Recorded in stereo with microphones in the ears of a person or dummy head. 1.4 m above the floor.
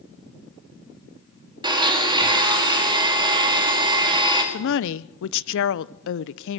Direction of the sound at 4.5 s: 70° left (ahead or behind).